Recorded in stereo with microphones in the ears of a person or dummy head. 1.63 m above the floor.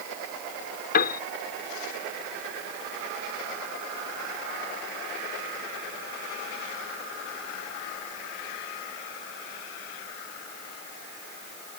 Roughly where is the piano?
Left.